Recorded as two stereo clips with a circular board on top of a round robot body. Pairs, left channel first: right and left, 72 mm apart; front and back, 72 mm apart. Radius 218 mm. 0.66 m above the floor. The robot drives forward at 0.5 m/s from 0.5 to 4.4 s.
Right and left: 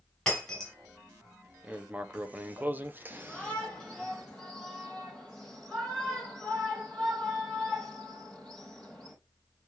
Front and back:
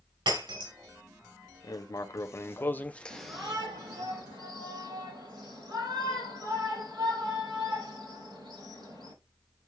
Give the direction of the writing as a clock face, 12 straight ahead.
11 o'clock.